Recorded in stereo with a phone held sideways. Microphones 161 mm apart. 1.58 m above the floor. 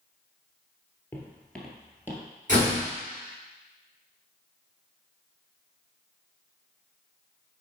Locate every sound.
1.1 s footsteps: 15° left (ahead or behind), 1.8 m; by 2.2 s 15° right (ahead or behind), 1.6 m
2.5 s a door slam: 50° right (ahead or behind), 3.5 m